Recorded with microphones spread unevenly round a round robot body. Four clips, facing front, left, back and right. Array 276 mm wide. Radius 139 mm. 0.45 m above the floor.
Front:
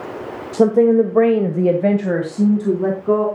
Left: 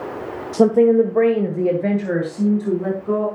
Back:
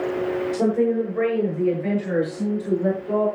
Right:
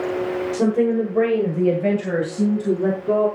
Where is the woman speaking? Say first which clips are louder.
Left 7 dB, front 10 dB; 40° left, 1.2 m; by 3.3 s 5° right, 4 m.